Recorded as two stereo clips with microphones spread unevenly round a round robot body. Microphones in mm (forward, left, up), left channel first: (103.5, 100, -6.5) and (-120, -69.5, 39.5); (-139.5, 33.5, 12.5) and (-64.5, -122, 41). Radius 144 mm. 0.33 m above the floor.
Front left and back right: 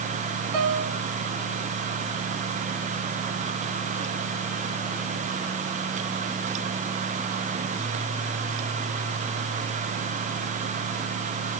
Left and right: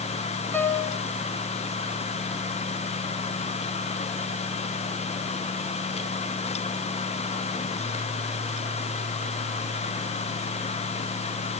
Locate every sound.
0.5 s a piano: 165° right, 2.5 m